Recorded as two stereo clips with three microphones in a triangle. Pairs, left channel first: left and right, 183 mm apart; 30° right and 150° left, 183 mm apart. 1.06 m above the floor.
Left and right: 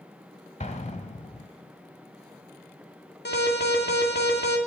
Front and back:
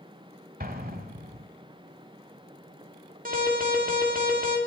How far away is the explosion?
About 1.4 m.